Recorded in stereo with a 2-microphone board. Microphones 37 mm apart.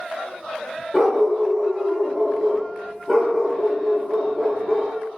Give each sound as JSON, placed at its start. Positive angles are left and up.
{"t": 0.9, "sound": "a dog barking", "side_deg": 5, "distance_m": 1.0}